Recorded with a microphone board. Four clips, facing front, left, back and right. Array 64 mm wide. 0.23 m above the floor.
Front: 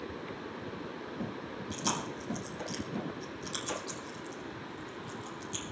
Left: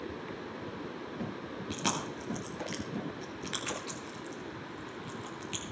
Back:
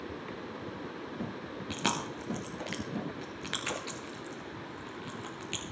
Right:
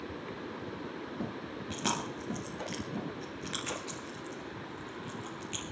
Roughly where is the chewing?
Behind.